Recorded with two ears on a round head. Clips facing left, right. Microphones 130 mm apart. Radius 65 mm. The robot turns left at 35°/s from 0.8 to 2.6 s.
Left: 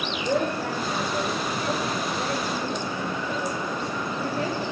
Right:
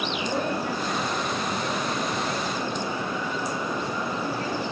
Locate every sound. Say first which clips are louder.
0.1 s a woman speaking: left 5 dB; 135° left, 2 m; by 4.7 s 75° left, 2 m